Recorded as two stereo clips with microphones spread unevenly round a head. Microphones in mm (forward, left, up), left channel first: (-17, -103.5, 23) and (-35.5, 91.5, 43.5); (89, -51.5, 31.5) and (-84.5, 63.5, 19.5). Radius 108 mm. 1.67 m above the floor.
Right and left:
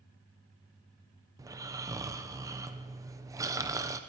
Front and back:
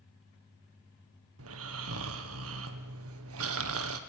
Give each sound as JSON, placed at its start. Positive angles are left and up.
{"t": 1.4, "sound": "snoring", "azimuth_deg": 170, "distance_m": 1.3}